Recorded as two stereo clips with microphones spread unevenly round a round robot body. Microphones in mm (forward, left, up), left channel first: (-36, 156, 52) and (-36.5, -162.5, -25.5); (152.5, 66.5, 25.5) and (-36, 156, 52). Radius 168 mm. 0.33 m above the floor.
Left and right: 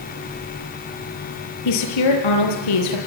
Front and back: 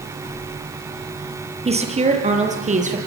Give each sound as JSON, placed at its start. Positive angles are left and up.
{"t": 1.6, "sound": "a woman speaking", "azimuth_deg": 95, "distance_m": 8.0}